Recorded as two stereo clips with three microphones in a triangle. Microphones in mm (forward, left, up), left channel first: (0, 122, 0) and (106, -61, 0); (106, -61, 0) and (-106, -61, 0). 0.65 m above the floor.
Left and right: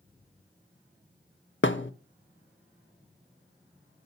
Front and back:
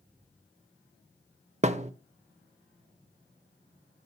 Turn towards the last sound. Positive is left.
turn(degrees=130)